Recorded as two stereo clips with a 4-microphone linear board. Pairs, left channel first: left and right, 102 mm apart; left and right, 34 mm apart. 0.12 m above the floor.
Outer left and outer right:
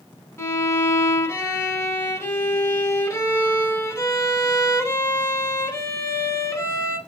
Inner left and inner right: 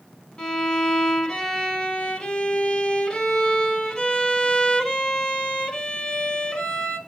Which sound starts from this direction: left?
A violin, at 0.4 s.